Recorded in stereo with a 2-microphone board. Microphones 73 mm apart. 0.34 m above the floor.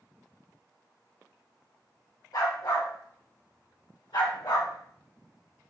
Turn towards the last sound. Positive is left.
turn(degrees=85)